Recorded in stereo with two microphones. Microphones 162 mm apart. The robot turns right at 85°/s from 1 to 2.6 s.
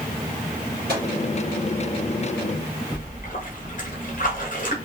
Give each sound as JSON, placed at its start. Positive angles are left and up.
{"t": 0.9, "sound": "a microwave", "side_deg": -80, "distance_m": 1.7}
{"t": 2.9, "sound": "a splash", "side_deg": 55, "distance_m": 1.4}